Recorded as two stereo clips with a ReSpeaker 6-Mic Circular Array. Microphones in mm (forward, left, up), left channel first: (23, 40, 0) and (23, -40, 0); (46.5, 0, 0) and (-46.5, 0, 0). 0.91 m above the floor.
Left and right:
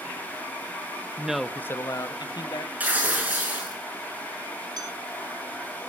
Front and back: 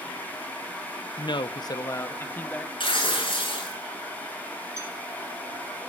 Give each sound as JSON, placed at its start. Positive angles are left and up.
{"t": 1.2, "sound": "a man speaking", "azimuth_deg": -20, "distance_m": 0.8}
{"t": 2.8, "sound": "tearing paper", "azimuth_deg": -20, "distance_m": 6.0}
{"t": 4.8, "sound": "a clink", "azimuth_deg": -120, "distance_m": 6.0}